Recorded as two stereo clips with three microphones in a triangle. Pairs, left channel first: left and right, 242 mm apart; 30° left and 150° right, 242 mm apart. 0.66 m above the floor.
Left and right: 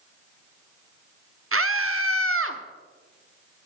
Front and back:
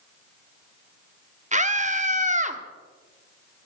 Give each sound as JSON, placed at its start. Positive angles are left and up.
{"t": 1.5, "sound": "a scream", "azimuth_deg": -90, "distance_m": 1.1}